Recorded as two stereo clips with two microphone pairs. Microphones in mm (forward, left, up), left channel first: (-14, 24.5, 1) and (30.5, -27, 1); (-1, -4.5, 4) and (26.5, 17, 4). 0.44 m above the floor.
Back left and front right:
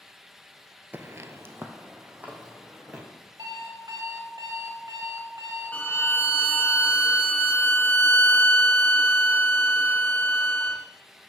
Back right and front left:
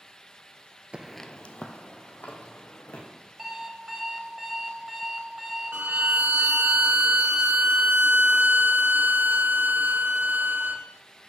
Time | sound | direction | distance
0.9 | footsteps | 5° right | 0.5 m
3.4 | an alarm clock | 40° right | 1.2 m
5.7 | a violin | 65° left | 0.6 m